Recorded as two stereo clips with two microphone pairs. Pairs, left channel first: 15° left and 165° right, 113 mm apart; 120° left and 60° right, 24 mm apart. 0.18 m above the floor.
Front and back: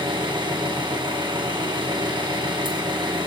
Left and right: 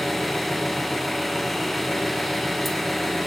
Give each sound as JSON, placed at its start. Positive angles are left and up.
{"t": 0.0, "sound": "an engine running", "azimuth_deg": -150, "distance_m": 1.8}